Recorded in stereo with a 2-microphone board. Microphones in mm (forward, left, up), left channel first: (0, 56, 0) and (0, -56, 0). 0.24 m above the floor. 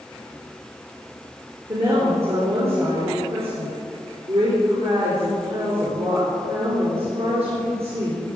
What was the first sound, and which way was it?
A woman speaking, 60° right (ahead or behind).